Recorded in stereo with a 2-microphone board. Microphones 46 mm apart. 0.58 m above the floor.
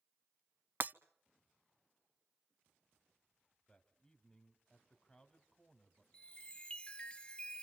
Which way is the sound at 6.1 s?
25° left (ahead or behind).